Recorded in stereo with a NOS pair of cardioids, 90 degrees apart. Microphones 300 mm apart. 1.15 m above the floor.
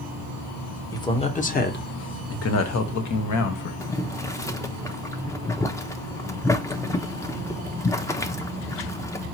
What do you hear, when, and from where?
0.9 s a man speaking: 10° left, 1.1 m; by 3.7 s 75° left, 1.5 m
3.8 s boiling: 10° left, 0.6 m